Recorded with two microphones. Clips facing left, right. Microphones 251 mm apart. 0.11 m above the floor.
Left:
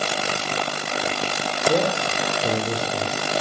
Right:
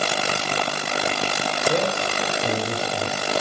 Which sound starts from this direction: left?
A man speaking, at 1.7 s.